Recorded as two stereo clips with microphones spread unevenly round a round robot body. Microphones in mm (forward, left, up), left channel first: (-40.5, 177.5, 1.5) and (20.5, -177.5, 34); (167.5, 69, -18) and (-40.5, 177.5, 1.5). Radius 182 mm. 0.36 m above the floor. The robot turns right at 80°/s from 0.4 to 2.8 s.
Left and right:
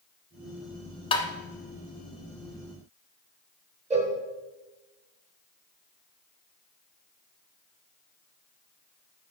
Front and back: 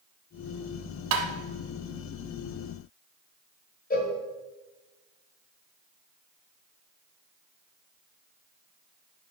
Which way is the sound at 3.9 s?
10° right.